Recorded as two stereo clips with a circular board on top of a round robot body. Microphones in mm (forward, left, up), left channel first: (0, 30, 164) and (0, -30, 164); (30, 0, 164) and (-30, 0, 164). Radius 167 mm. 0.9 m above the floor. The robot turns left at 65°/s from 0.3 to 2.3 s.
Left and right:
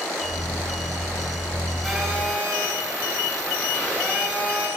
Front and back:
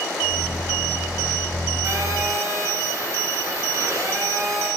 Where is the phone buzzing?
Straight behind, 8.5 m; by 4.7 s 150° left, 8.5 m.